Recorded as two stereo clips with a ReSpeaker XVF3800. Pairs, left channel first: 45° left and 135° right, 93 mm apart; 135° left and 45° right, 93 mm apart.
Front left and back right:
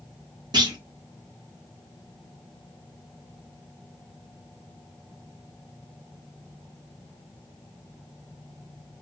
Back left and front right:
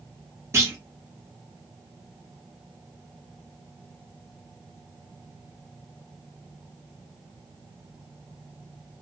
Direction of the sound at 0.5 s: 100° right.